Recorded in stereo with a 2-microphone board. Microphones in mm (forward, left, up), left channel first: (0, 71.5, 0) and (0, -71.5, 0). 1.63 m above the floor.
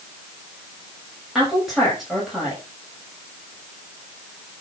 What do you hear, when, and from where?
1.4 s a woman speaking: centre (ahead or behind), 8 m